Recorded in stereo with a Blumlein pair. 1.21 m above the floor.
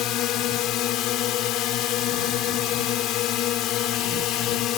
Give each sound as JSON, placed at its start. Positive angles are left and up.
{"t": 0.0, "sound": "a drone", "azimuth_deg": 35}